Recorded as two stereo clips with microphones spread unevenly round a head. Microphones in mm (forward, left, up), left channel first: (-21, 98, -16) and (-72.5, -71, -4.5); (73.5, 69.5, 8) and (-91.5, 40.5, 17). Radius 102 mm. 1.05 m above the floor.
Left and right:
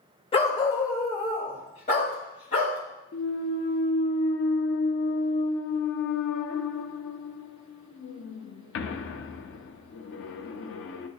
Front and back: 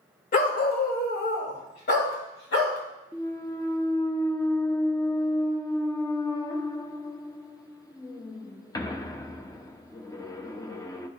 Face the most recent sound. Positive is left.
turn(degrees=80)